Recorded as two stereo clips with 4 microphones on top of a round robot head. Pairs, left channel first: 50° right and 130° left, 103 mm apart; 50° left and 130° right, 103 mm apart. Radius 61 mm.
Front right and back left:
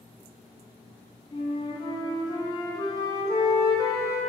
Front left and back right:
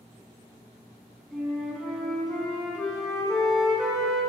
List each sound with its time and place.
1.3 s a flute: 45° right, 0.9 m